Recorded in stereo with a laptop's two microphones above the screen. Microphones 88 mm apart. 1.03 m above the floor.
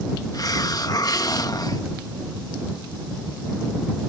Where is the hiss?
45° left (ahead or behind).